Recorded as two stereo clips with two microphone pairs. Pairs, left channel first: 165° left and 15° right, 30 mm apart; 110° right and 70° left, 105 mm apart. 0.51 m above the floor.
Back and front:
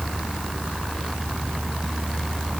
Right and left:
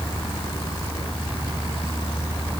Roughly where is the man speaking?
No man speaking in this recording.